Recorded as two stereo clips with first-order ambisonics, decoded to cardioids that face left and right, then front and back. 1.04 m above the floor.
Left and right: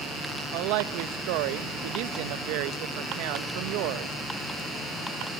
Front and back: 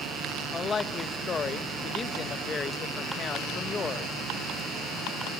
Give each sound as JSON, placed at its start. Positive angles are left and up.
{"t": 0.5, "sound": "a woman speaking", "azimuth_deg": -70, "distance_m": 0.7}